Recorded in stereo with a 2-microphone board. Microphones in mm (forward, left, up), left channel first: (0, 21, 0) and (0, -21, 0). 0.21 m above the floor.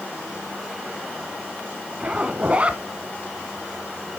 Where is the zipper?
30° right (ahead or behind), 1.0 m.